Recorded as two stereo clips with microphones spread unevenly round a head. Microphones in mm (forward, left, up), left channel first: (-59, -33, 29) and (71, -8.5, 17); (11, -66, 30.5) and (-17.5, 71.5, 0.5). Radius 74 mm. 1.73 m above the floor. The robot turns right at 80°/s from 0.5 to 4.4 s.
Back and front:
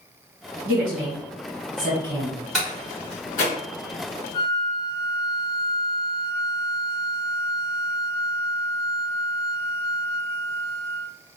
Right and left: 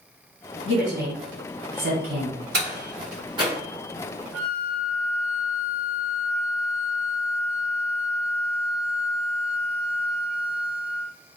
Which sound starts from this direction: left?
A door slam, at 2.5 s.